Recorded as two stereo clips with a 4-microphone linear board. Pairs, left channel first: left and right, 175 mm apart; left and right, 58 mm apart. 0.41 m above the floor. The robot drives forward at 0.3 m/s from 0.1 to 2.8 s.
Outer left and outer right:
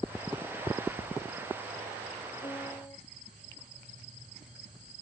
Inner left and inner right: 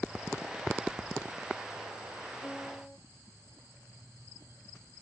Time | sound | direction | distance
2.4 | a piano | 20° left (ahead or behind) | ?